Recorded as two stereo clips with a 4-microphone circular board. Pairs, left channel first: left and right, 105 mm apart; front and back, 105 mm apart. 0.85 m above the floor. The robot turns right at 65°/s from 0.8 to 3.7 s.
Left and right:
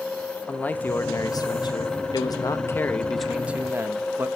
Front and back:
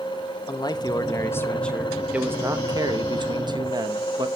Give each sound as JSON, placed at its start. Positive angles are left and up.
{"t": 0.5, "sound": "a man speaking", "azimuth_deg": 20, "distance_m": 0.9}